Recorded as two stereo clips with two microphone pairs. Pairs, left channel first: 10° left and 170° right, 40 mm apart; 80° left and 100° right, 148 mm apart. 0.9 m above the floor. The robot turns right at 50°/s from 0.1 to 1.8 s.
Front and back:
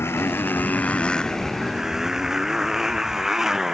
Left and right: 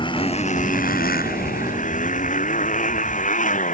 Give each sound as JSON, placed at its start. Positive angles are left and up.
{"t": 0.0, "sound": "a motorcycle", "azimuth_deg": 25}